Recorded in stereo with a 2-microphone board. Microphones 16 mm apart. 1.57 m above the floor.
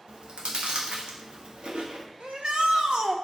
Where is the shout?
80° right, 1.4 m.